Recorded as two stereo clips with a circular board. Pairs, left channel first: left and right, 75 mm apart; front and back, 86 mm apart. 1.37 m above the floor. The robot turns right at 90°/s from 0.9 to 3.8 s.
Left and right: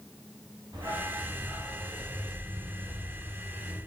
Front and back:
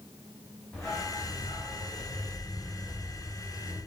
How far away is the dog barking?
About 2.5 m.